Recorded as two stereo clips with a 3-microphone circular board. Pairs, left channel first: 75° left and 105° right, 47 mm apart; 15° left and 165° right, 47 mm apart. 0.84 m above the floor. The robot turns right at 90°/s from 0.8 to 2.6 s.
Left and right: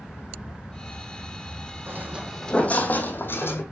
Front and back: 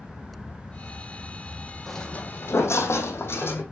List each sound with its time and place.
1.9 s footsteps: 75° right, 2.5 m; by 3.6 s 50° left, 2.5 m